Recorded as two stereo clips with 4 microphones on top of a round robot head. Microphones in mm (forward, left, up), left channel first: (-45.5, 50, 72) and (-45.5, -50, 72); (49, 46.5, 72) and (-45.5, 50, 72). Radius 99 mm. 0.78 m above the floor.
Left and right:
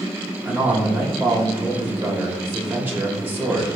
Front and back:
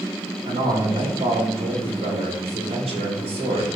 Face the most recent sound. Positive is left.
turn(degrees=-160)